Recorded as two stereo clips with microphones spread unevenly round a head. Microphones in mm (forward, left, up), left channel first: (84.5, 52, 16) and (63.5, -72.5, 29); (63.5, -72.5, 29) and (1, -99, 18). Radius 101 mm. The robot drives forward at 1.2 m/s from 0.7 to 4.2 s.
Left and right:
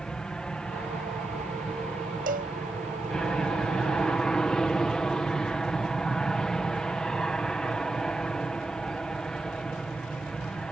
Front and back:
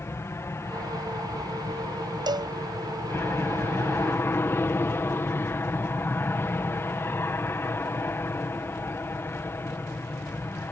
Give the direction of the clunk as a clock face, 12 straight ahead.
I don't hear a clunk.